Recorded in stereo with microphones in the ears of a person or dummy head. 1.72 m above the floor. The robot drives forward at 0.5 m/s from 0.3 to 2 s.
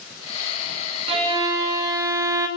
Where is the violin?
25° right (ahead or behind), 0.6 m; by 2.5 s 15° right (ahead or behind), 1.0 m.